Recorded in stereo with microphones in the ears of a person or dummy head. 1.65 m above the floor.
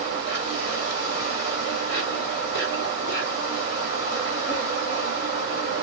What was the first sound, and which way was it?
An insect, 55° left (ahead or behind).